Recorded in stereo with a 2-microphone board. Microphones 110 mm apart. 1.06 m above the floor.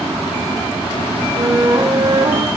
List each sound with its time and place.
1.4 s a flute: 35° right (ahead or behind), 1.0 m